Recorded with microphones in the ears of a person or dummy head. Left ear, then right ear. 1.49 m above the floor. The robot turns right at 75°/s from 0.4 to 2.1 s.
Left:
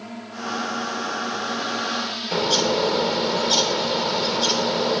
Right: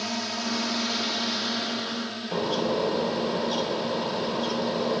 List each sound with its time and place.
0.0 s a drone: 105° right; by 5.0 s 25° left
2.3 s a bird: 50° left (ahead or behind)